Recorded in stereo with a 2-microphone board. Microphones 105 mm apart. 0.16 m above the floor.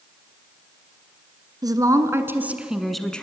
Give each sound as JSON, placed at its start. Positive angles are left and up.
{"t": 1.6, "sound": "a woman speaking", "side_deg": -35, "distance_m": 1.8}